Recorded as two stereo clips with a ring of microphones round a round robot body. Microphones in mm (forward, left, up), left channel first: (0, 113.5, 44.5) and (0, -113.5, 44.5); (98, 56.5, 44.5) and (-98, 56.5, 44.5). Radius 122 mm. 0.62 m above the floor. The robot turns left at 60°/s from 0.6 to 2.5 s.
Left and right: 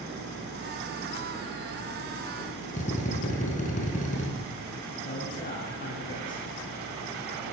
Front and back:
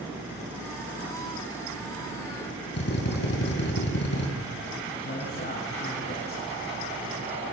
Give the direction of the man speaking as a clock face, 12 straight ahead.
11 o'clock.